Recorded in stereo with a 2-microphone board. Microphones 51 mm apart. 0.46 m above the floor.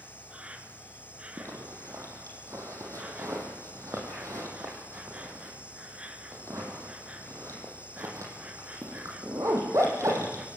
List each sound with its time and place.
0.0 s an insect: 25° right (ahead or behind), 2 m
1.4 s a zipper: 75° right (ahead or behind), 7 m